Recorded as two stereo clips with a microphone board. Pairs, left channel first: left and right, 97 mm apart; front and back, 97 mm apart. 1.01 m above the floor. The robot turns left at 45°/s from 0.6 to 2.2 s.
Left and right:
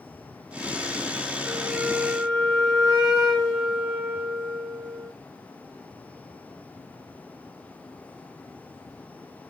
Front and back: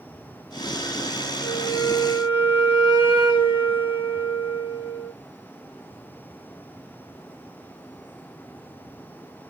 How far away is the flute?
About 2 m.